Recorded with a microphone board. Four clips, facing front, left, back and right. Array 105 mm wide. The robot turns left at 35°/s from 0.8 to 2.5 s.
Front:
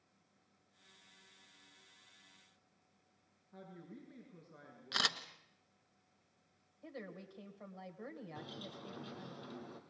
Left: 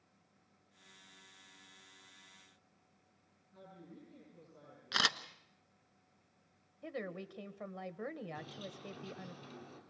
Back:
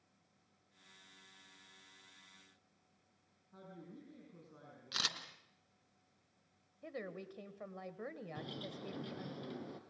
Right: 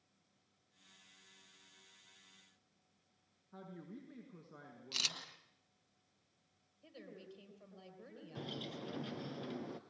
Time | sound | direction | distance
3.5 | a woman speaking | 85° right | 6 m
4.9 | a camera shutter | 75° left | 1.2 m
6.8 | a woman speaking | 110° left | 2 m
8.3 | a bird | 115° right | 2 m